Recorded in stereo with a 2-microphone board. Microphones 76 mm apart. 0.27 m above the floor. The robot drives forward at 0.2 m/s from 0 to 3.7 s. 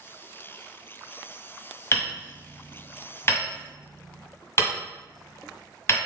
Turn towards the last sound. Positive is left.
turn(degrees=35)  # may be behind; listen again after turning